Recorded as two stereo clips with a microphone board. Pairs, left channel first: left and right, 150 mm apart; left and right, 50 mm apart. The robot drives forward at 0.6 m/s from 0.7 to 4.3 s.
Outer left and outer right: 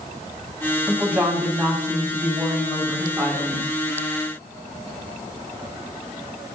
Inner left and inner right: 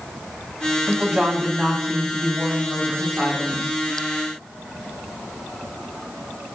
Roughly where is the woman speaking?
Centre.